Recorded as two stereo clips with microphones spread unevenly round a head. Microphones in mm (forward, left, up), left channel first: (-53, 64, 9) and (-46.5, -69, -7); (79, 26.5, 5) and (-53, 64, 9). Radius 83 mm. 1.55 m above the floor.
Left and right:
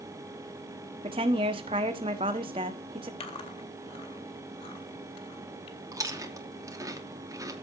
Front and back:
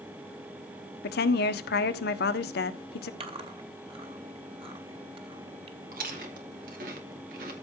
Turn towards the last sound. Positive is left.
turn(degrees=-155)